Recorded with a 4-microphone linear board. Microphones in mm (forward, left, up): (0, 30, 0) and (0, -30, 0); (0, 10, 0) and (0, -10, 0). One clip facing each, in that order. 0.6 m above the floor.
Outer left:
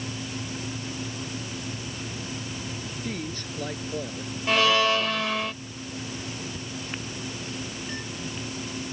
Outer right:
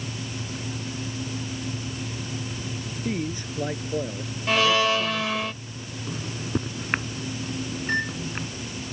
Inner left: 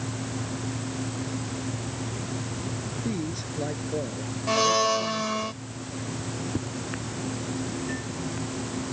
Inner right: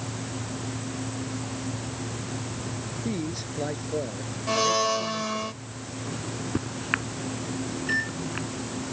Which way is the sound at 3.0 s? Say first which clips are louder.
Outer right 6 dB, inner right 1 dB; 15° right (ahead or behind).